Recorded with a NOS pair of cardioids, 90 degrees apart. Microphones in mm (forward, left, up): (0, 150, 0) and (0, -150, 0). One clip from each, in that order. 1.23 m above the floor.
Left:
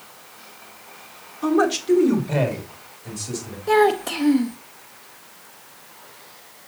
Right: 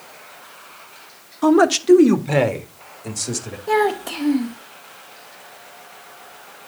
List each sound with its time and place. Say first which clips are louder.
1.4 s a man speaking: right 5 dB; 45° right, 1.3 m; by 3.6 s 65° right, 2.5 m
3.7 s a child speaking: left 2 dB; 5° left, 0.7 m